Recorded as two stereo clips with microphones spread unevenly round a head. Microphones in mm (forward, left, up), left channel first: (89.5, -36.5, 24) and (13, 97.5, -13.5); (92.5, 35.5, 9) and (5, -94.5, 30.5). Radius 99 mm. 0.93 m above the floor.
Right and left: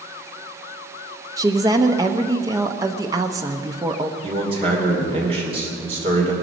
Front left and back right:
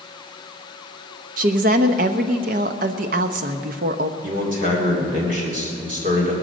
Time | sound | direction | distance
1.4 | a woman speaking | 170° right | 0.6 m
4.2 | a man speaking | 175° right | 2.5 m